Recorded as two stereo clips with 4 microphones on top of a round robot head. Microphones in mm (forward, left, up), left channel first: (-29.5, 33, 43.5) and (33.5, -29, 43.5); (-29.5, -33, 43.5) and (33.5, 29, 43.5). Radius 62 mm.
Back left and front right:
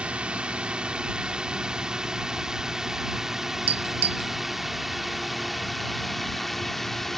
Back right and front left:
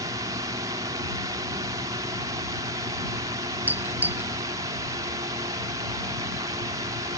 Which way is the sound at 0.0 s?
30° left.